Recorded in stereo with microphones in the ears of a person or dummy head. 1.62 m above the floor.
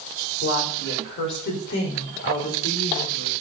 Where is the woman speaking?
60° left (ahead or behind), 6 m; by 3.3 s 45° left (ahead or behind), 4.5 m.